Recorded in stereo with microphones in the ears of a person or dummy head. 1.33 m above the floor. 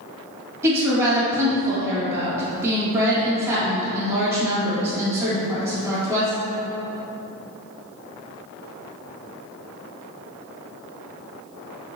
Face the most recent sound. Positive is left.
turn(degrees=-15)  # may be behind; listen again after turning